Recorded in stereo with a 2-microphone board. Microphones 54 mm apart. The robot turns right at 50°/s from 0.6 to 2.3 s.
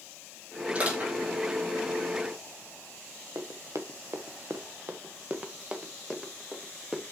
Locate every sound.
0.8 s crushing: 25° right (ahead or behind), 5 m; by 1.1 s 40° right (ahead or behind), 5 m
3.4 s running footsteps: 75° right (ahead or behind), 1.4 m; by 7.0 s centre (ahead or behind), 2 m